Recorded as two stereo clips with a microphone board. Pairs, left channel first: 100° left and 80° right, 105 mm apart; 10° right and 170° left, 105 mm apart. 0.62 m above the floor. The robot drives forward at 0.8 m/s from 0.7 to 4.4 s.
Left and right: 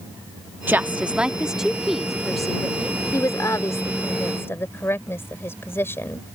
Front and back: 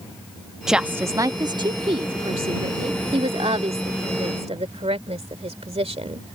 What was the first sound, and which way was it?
A woman speaking, 110° right.